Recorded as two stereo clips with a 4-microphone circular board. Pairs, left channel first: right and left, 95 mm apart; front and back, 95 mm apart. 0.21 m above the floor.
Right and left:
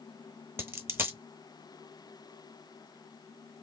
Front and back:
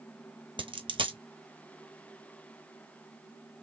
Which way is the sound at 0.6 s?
155° left.